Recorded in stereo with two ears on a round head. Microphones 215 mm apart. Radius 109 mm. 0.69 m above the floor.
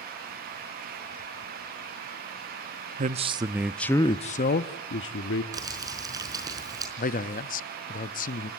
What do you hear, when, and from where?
3.0 s a man speaking: 35° right (ahead or behind), 0.9 m; by 5.4 s 60° left (ahead or behind), 1.3 m
5.5 s crumpling: 15° right (ahead or behind), 4.5 m
7.0 s a man speaking: 35° left (ahead or behind), 0.6 m